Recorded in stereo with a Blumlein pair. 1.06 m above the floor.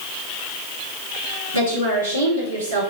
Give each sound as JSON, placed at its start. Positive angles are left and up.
{"t": 1.5, "sound": "a woman speaking", "azimuth_deg": -70, "distance_m": 2.0}